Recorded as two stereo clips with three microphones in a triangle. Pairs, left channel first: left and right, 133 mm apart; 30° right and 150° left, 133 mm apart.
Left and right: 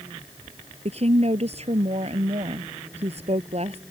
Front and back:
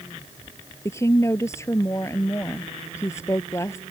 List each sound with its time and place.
0.8 s a woman speaking: 95° right